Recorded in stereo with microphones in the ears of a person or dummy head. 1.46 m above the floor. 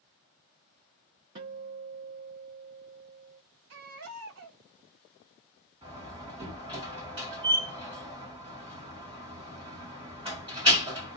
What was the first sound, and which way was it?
A guitar, 15° right (ahead or behind).